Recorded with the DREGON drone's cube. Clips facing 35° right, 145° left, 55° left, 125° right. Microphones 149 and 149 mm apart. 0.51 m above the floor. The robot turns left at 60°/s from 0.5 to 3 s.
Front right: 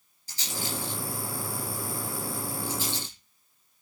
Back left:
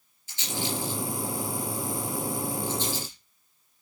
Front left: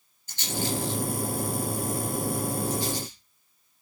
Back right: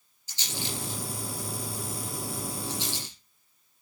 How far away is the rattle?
About 7.5 m.